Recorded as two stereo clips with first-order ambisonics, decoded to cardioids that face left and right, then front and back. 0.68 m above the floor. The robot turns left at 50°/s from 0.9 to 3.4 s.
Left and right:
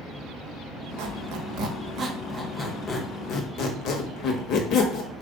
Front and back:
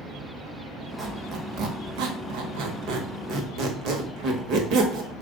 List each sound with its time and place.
1.0 s a squeak: 105° right, 0.9 m; by 5.2 s 135° left, 0.9 m